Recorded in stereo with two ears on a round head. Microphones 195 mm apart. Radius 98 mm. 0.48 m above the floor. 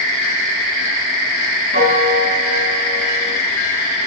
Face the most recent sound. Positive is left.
turn(degrees=-45)  # may be behind; listen again after turning